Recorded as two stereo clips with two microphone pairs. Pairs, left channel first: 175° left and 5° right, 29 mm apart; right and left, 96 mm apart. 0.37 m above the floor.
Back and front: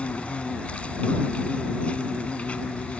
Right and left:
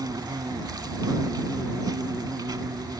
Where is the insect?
135° left.